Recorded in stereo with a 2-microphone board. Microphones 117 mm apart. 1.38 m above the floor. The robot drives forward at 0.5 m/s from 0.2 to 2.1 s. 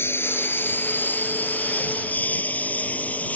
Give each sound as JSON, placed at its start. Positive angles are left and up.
{"t": 0.0, "sound": "a lawn mower", "side_deg": 20}